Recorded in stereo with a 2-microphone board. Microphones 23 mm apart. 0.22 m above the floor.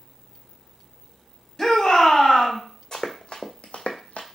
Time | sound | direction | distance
1.6 | a shout | 25° left (ahead or behind) | 1.4 m
2.9 | running footsteps | 35° left (ahead or behind) | 1.0 m